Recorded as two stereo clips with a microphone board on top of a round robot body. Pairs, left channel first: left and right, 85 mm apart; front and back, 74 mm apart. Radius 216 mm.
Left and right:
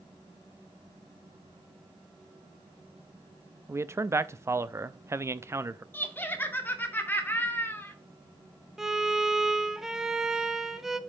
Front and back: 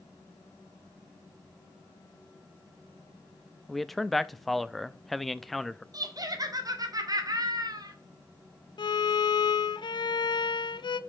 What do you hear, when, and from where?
3.7 s a man speaking: 85° right, 0.7 m
5.9 s laughter: 155° left, 1.9 m
8.8 s a violin: 5° right, 0.7 m